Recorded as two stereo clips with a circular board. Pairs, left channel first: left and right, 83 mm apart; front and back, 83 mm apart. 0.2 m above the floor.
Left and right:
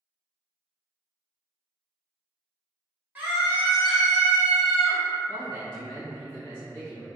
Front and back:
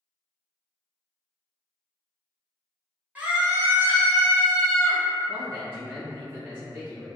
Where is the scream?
130° right, 1.3 m; by 5.0 s 170° left, 1.7 m.